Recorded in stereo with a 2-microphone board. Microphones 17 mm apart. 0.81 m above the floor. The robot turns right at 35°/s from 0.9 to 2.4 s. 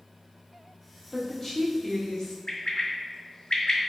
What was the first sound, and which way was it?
A woman speaking, 20° left.